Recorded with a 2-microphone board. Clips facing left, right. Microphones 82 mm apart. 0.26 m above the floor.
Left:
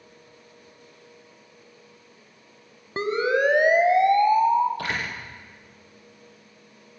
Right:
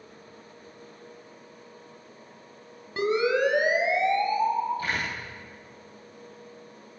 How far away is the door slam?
About 7.5 m.